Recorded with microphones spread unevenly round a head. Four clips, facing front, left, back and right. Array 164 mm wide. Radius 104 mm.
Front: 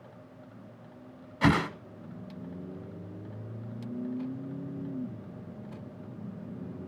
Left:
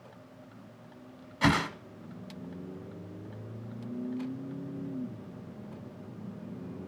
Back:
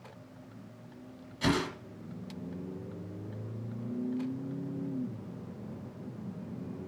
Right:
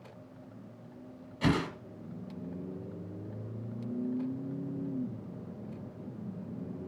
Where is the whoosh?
60° left, 1.0 m.